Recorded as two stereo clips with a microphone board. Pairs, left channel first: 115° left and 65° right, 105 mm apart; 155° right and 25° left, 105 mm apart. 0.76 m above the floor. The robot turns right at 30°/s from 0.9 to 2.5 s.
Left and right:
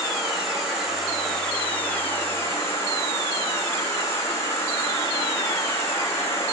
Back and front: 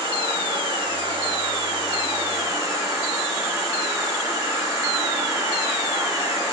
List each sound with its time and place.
0.0 s an insect: 20° left, 2 m; by 6.5 s 65° left, 2 m